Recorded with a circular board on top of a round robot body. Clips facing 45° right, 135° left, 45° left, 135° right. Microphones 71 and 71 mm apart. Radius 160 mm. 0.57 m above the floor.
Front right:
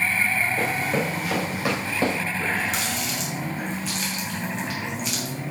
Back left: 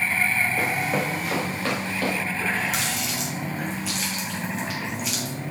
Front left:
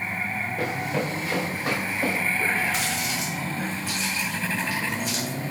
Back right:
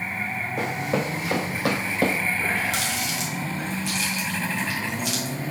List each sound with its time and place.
0.6 s running footsteps: 140° right, 2.5 m; by 2.2 s 105° right, 1.2 m
2.4 s a running tap: 135° right, 3.5 m